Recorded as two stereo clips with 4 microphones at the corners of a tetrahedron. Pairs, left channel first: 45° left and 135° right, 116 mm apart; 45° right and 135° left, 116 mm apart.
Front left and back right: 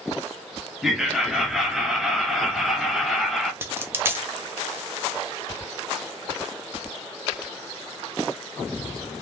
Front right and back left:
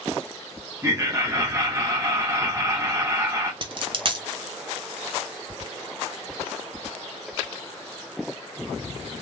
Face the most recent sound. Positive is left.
turn(degrees=165)